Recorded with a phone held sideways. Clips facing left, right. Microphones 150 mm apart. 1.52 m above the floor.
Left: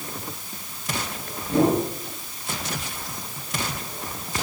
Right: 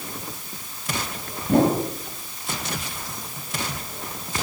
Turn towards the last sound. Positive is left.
turn(degrees=-65)  # may be behind; listen again after turning